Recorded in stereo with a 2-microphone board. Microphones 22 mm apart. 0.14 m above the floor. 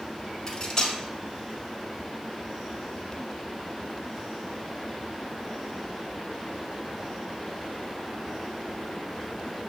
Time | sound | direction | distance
0.5 | cutlery clinking | 25° left (ahead or behind) | 0.7 m